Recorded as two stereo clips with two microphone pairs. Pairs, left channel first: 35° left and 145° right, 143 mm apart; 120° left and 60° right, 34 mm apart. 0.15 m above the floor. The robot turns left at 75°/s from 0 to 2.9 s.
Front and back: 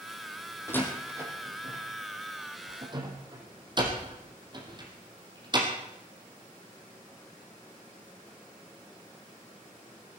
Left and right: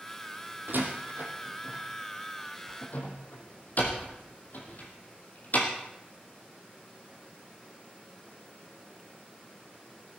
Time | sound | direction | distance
0.7 | a door slam | 35° right | 3.5 m